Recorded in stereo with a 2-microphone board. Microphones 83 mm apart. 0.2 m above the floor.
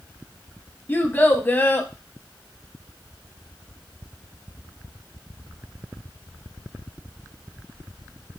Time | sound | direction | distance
0.9 | a child speaking | 25° left (ahead or behind) | 0.6 m